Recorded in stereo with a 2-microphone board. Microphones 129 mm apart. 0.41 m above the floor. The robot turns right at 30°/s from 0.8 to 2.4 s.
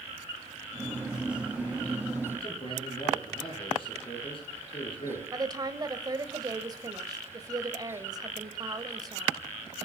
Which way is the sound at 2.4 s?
40° left (ahead or behind).